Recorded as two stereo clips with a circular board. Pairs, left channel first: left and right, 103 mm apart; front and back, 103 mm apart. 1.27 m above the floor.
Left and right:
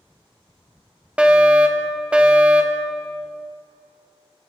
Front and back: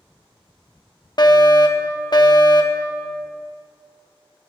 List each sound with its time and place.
1.2 s a fire alarm: 15° right, 1.0 m